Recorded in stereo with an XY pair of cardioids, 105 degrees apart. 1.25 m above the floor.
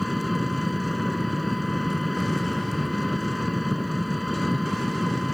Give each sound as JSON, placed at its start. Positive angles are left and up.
{"t": 0.0, "sound": "an engine running", "azimuth_deg": 10}